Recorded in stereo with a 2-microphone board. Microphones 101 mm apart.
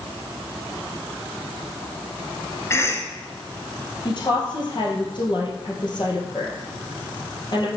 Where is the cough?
25° left (ahead or behind), 1.2 m.